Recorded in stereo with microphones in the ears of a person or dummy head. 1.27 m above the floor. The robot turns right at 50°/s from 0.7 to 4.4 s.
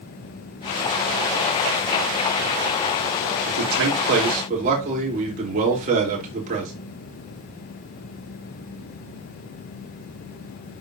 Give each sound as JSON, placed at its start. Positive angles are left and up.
{"t": 3.5, "sound": "a man speaking", "azimuth_deg": -90, "distance_m": 3.5}